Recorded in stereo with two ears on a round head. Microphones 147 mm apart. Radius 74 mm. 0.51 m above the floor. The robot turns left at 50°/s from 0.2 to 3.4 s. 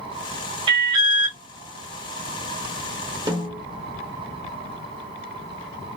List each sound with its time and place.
0.7 s an alarm: 105° right, 1.2 m; by 1.4 s 140° right, 1.2 m
3.3 s a snare drum: 25° right (ahead or behind), 1.5 m; by 3.6 s 20° right (ahead or behind), 1.5 m